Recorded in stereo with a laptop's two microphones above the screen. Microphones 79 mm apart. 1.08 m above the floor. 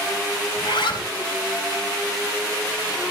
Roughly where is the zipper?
Left.